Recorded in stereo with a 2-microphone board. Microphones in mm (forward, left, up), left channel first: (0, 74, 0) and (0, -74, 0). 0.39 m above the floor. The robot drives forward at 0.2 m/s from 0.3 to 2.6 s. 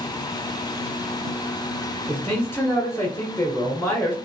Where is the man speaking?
15° left (ahead or behind), 1.2 m.